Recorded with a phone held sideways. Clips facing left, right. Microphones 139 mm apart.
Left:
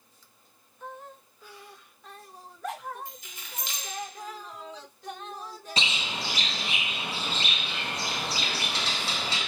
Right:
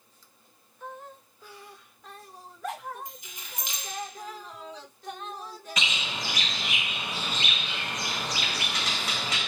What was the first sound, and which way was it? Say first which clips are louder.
Keys jangling: even; 15° right (ahead or behind).